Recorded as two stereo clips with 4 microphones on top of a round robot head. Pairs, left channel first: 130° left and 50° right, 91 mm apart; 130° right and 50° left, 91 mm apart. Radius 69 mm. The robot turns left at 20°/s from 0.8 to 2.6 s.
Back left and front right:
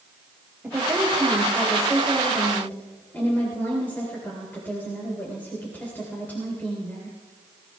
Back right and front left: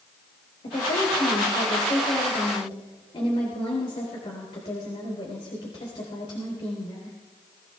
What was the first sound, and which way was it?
A woman speaking, 125° right.